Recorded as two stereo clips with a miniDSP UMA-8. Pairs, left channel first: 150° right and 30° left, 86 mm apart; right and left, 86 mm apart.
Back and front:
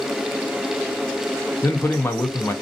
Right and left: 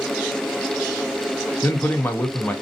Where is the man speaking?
130° right, 0.5 m.